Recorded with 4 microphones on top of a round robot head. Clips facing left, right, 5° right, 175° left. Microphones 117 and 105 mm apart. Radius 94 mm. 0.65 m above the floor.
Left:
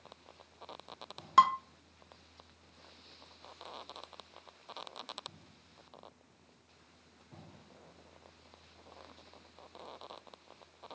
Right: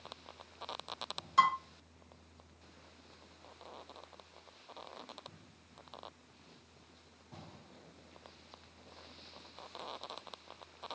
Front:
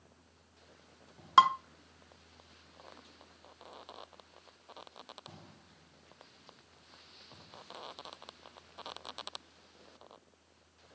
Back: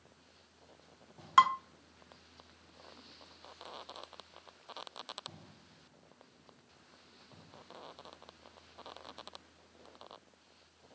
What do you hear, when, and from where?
1.4 s dishes clattering: 60° left, 0.7 m